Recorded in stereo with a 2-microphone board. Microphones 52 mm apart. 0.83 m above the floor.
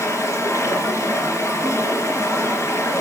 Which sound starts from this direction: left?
Running water, at 0.0 s.